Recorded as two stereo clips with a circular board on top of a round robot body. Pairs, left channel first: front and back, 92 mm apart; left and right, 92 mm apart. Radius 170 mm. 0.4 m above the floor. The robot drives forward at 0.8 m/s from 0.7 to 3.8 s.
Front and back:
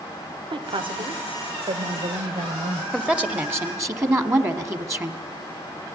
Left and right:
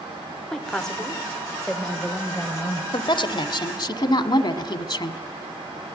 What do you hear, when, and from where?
0.5 s a woman speaking: 175° left, 1.8 m
2.9 s a woman speaking: 100° left, 1.5 m; by 5.2 s 125° left, 1.7 m